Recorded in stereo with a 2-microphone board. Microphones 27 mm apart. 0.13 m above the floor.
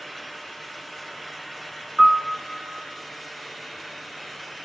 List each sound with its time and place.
2.0 s a piano: 15° right (ahead or behind), 0.8 m